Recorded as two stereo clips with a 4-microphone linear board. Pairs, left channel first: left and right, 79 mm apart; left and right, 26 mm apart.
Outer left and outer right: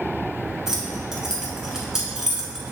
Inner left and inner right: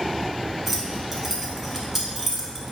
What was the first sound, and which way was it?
Keys jangling, 5° right (ahead or behind).